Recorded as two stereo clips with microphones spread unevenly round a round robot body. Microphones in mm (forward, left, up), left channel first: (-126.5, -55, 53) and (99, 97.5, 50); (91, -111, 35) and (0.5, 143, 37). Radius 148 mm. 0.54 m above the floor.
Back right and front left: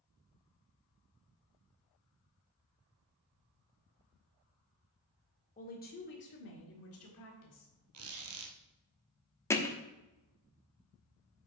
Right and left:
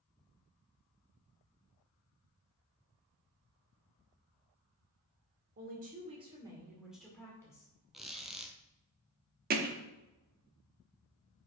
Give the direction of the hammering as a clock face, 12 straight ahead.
7 o'clock.